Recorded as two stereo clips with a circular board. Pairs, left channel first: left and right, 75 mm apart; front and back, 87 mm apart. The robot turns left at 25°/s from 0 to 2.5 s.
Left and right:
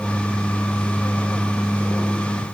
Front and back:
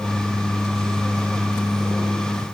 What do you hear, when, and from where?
Only background noise.